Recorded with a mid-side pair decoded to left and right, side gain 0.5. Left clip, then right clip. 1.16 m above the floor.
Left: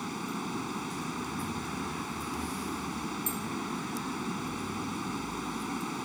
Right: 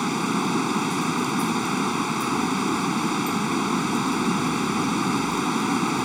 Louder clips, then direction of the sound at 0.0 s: Right 12 dB; 65° right.